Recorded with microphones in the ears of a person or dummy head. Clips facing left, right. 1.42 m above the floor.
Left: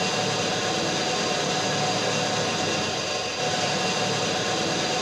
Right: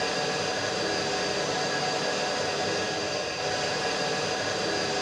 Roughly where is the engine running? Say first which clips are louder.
Left 3 dB; left.